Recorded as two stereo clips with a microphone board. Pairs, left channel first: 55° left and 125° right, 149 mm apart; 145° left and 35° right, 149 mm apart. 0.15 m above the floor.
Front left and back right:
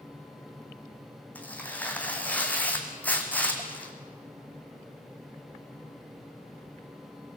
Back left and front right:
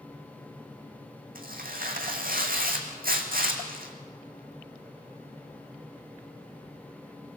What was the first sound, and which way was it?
Tearing paper, 25° right.